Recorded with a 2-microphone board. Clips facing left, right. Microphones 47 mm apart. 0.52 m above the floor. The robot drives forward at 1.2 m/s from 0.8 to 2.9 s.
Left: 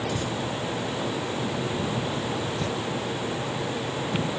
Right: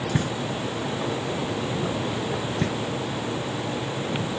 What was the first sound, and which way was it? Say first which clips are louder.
Knocking: right 2 dB; 60° right (ahead or behind).